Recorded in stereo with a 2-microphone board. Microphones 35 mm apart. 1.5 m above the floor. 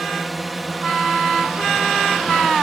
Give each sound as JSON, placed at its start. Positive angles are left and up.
{"t": 0.0, "sound": "a drone", "side_deg": -5}